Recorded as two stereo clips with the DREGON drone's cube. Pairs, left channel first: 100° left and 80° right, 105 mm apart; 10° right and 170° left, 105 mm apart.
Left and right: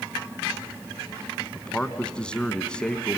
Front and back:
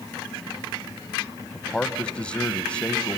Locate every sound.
1.5 s a man speaking: 45° left, 1.1 m